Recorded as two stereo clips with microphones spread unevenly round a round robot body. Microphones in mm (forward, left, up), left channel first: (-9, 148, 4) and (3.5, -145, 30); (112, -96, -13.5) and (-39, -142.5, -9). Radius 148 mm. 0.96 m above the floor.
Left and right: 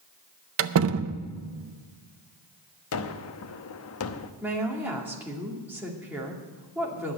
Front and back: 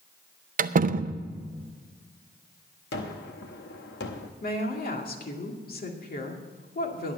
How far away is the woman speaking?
About 2 m.